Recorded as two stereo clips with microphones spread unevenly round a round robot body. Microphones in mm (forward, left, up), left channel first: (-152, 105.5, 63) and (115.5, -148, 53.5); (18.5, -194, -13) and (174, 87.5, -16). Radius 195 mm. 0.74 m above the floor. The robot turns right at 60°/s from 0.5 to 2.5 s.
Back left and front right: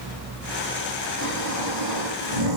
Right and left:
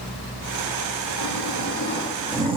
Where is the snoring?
90° right, 9.5 m; by 2.6 s 15° right, 9.5 m.